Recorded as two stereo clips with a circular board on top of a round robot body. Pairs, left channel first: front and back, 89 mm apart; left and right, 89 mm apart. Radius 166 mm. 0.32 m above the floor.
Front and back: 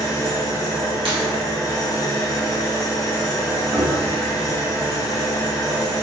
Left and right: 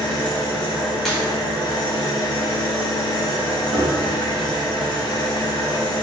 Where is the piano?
130° right, 0.8 m.